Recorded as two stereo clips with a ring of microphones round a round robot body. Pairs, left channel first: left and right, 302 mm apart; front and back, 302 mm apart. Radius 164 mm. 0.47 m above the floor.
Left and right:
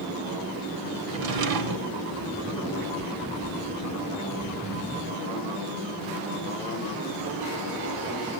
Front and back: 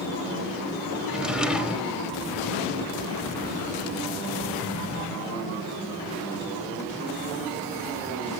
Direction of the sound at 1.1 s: 95° right.